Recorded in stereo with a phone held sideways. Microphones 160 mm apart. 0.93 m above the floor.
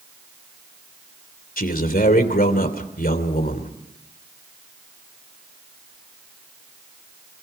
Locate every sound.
1.6 s a man speaking: 65° left (ahead or behind), 3 m